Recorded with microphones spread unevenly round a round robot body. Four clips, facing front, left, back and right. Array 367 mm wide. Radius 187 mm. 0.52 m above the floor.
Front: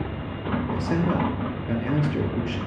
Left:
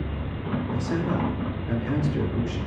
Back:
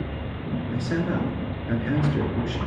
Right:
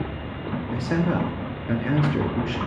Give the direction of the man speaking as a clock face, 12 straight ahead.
2 o'clock.